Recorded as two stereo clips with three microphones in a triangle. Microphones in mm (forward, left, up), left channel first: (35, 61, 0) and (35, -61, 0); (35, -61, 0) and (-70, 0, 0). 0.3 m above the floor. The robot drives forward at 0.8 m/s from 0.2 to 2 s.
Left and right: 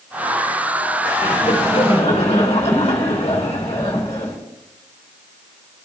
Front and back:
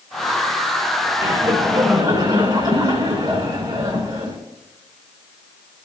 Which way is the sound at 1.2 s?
90° left.